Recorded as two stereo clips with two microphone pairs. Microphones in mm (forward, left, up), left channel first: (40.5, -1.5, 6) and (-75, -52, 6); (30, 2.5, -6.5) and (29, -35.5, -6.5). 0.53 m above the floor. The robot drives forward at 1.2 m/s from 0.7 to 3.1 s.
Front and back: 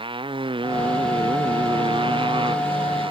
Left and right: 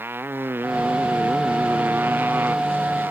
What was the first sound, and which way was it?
A motorcycle, 105° right.